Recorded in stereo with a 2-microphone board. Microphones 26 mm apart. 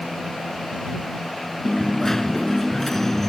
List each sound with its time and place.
1.6 s a dropped coin: 10° left (ahead or behind)